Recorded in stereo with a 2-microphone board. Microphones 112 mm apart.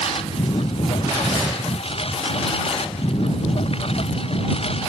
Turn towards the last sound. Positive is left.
turn(degrees=55)  # may be behind; listen again after turning